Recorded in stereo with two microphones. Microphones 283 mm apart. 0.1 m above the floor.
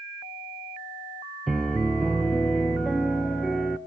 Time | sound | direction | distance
1.5 | a piano | centre (ahead or behind) | 0.8 m